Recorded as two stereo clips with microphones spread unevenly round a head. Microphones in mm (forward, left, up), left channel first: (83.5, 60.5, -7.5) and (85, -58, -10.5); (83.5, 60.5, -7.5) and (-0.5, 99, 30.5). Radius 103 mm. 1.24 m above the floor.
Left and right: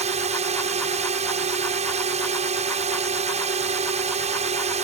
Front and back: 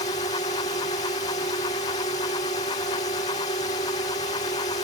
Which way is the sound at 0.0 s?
70° right.